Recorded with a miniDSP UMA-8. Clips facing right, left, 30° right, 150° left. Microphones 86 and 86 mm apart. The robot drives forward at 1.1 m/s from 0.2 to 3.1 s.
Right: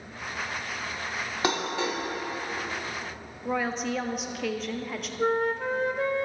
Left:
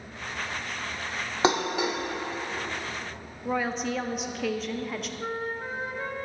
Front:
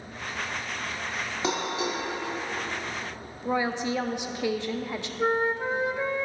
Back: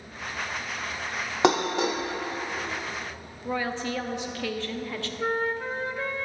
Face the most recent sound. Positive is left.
turn(degrees=-100)